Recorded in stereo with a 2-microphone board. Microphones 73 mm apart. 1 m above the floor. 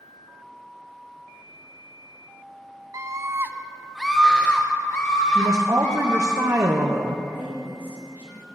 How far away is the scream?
About 0.7 m.